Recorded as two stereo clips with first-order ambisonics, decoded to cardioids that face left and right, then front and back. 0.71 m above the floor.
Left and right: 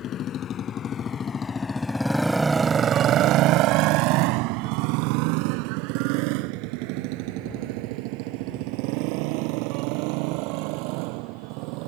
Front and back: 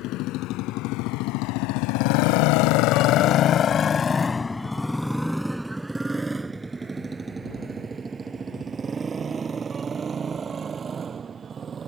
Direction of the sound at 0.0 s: 35° left.